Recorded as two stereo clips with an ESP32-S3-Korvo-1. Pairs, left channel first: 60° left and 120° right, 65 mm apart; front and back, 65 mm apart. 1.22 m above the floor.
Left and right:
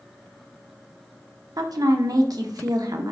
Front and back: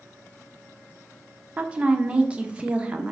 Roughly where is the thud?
No thud in this recording.